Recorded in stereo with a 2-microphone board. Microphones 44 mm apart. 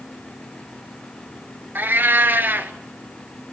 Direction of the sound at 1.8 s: 50° right (ahead or behind).